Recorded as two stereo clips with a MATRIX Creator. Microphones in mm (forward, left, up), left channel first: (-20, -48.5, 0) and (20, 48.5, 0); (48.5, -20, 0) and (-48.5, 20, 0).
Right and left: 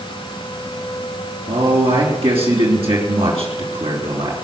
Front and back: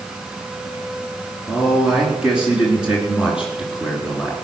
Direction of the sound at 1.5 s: 75° left.